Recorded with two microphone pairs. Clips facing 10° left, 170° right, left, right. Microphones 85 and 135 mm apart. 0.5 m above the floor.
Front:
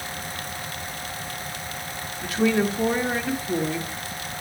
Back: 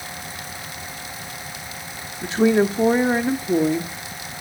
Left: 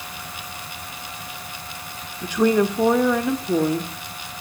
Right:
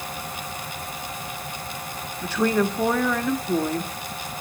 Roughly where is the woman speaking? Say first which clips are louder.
Back 5 dB, left 4 dB; behind left.